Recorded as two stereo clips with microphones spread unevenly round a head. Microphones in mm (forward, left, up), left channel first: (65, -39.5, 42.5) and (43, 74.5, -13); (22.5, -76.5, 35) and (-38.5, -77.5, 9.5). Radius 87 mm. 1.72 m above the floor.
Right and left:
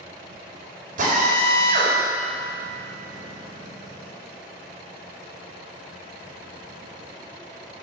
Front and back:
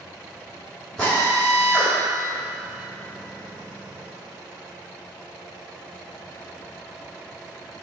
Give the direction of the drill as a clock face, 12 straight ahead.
9 o'clock.